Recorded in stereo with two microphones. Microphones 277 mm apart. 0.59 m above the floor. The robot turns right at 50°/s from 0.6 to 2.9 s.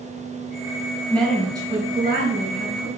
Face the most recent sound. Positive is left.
turn(degrees=-100)